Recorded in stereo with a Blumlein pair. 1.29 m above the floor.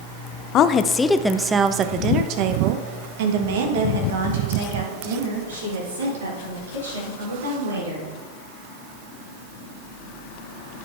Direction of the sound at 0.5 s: 35° left.